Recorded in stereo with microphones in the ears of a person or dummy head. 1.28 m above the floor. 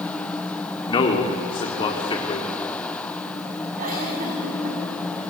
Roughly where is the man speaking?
Left.